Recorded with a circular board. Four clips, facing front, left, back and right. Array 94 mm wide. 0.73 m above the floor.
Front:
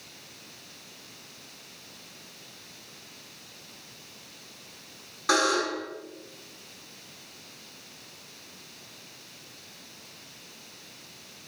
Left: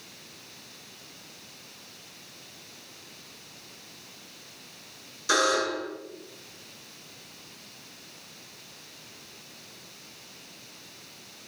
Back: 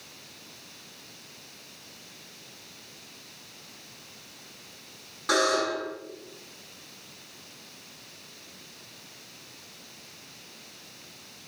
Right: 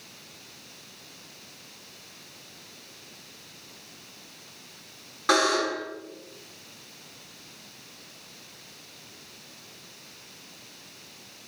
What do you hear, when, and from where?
5.3 s a buzzer: 85° right, 7 m